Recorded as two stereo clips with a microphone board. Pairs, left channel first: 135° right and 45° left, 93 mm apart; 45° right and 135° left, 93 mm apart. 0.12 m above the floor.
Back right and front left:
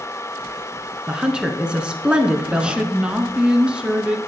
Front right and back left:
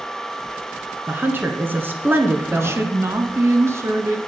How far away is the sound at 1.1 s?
About 1.5 m.